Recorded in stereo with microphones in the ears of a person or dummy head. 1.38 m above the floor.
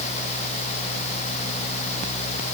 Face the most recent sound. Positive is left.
No sound to turn to.